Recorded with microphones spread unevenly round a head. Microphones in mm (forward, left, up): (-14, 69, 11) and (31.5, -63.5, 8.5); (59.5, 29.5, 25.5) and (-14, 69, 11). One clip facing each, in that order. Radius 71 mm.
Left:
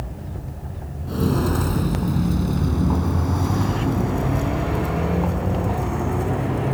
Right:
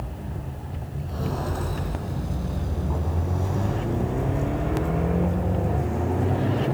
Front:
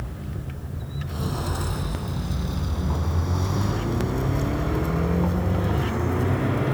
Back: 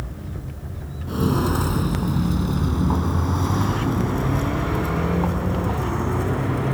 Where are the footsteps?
115° left, 3 m; by 6.8 s 95° left, 5.5 m.